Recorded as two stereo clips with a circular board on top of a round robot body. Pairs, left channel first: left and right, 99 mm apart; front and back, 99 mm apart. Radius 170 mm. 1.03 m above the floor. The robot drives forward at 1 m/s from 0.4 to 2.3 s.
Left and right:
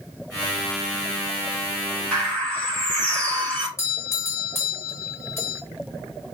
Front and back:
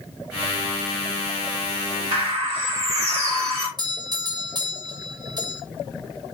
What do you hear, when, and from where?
2.1 s a bird: 175° left, 3 m
3.8 s a doorbell: 150° left, 1.6 m